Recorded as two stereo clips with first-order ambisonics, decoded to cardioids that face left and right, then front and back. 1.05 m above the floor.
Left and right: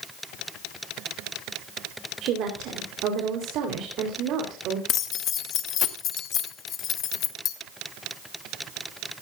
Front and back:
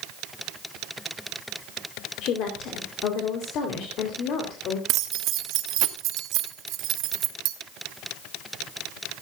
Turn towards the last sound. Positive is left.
turn(degrees=140)